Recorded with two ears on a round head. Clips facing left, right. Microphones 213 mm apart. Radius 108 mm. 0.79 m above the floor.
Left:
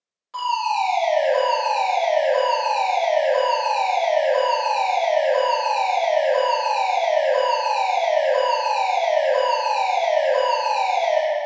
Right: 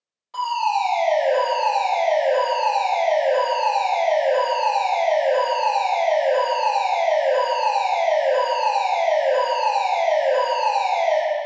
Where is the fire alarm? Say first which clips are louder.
Right 1 dB; 15° left (ahead or behind), 1.9 m.